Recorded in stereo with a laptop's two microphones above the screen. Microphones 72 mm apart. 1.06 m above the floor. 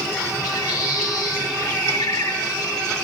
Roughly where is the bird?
Left.